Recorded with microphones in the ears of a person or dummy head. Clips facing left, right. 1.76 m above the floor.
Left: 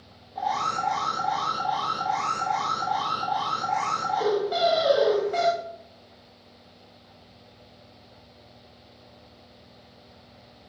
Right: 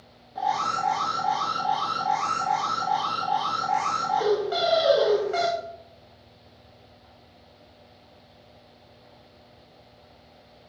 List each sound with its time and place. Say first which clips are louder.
0.3 s an alarm: right 1 dB; 5° right (ahead or behind), 3 m